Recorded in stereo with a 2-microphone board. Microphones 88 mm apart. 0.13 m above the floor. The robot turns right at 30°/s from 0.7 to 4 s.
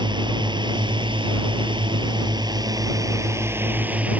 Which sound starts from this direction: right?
A drone, at 0.0 s.